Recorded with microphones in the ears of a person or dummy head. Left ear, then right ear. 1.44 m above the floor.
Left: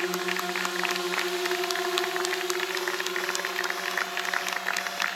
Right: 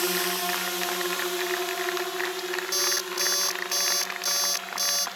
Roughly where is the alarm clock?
Right.